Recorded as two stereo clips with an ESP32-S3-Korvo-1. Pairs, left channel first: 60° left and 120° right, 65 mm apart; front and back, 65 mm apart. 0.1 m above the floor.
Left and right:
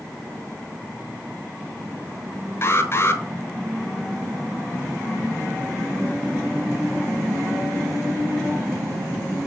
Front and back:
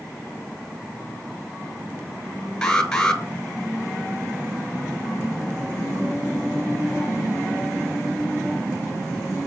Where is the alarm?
75° left, 0.9 m.